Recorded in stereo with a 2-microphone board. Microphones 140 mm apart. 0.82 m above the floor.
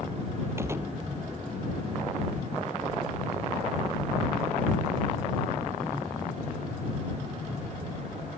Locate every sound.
0.6 s a gunshot: 20° right (ahead or behind)